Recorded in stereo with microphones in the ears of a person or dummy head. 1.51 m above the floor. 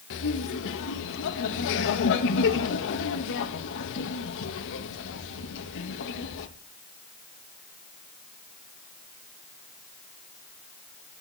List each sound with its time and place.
0.1 s laughter: 65° left (ahead or behind), 2 m